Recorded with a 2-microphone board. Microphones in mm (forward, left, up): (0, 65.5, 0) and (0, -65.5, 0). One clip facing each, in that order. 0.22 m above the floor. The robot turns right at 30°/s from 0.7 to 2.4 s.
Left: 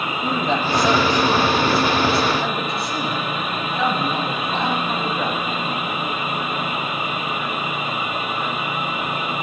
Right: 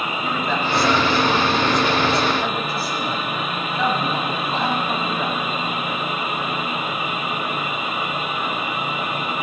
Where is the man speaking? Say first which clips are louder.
Left 3 dB; 135° left, 1.1 m; by 5.5 s 175° right, 1.1 m.